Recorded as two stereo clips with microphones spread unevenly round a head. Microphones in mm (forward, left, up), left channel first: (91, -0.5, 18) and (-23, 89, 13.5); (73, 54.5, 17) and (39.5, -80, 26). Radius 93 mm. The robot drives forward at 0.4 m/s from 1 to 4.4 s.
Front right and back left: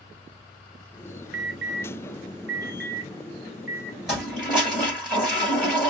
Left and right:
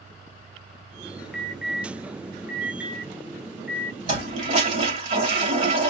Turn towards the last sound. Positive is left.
turn(degrees=-130)